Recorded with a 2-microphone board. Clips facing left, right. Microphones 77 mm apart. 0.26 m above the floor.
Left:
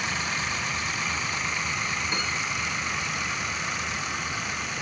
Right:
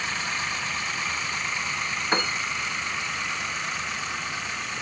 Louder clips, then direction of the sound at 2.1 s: Right 4 dB; 55° right (ahead or behind).